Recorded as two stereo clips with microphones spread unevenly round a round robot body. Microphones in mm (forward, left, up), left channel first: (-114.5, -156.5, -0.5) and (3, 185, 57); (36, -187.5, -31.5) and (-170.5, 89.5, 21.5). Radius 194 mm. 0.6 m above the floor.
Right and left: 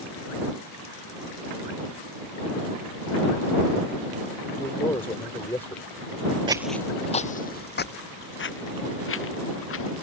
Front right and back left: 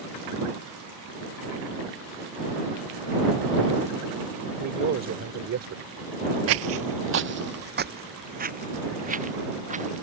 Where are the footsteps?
135° left; by 10.0 s 165° right.